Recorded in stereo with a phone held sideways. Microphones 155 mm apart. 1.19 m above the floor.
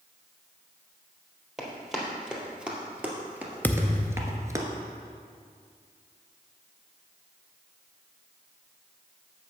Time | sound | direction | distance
1.6 | running footsteps | 5° right (ahead or behind) | 2 m
3.6 | a thud | 10° left (ahead or behind) | 0.5 m